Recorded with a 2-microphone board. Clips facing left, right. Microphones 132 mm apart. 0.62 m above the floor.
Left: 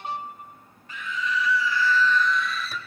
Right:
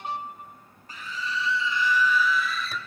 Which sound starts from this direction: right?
A scream, at 0.9 s.